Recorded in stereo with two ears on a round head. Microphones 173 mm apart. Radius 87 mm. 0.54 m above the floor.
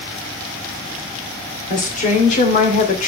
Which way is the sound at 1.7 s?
40° left (ahead or behind).